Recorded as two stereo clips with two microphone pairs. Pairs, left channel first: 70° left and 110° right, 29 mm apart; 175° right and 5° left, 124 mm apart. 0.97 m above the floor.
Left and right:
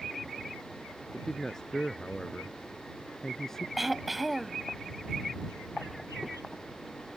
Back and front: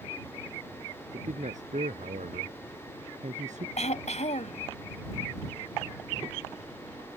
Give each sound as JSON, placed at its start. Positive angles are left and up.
{"t": 1.1, "sound": "a man speaking", "azimuth_deg": 5}
{"t": 3.8, "sound": "throat clearing", "azimuth_deg": 170}